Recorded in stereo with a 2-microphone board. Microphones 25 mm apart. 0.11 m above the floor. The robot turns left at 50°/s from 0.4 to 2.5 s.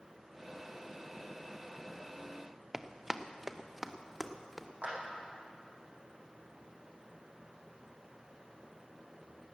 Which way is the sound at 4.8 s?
70° right (ahead or behind).